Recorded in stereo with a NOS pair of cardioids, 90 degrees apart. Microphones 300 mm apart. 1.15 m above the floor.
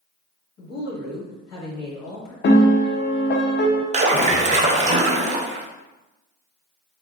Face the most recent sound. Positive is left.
turn(degrees=-25)